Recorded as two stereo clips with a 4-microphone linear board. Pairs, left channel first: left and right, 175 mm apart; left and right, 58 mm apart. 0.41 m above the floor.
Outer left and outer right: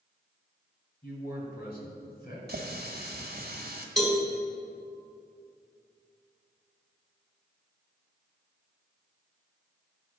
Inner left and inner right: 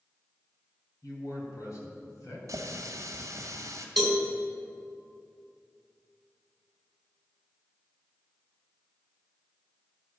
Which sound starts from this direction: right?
A running tap, at 2.5 s.